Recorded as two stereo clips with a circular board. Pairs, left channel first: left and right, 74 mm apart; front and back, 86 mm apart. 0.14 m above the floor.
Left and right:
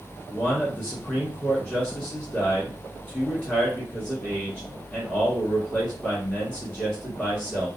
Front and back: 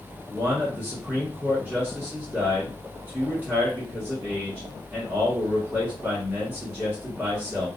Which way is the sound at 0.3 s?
140° left.